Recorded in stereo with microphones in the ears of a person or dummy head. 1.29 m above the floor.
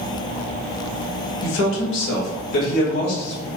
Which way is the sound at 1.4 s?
85° left.